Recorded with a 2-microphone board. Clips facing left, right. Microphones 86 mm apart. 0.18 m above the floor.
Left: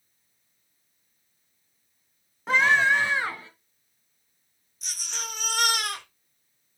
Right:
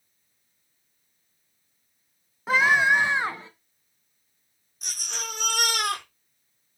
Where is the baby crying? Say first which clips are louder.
Right 1 dB; 55° right (ahead or behind), 5.5 m.